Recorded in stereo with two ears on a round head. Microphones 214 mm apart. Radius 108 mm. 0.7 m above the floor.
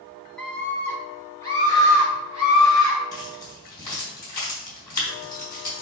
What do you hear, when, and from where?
0.4 s a scream: 5° left (ahead or behind), 0.8 m; by 3.0 s 15° left (ahead or behind), 3.5 m
3.1 s keys jangling: 15° left (ahead or behind), 3 m